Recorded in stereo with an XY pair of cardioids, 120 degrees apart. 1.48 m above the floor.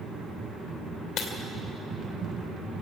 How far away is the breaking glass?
About 2.5 m.